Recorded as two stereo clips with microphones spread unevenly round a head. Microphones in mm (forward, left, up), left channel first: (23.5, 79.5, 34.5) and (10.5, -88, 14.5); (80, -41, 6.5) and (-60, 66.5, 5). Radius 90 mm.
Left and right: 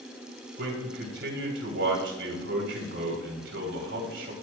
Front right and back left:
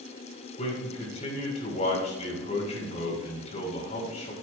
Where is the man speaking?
95° right, 3.5 m.